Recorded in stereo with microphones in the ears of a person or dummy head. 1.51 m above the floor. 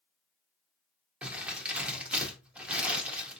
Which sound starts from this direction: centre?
Crumpling, at 1.2 s.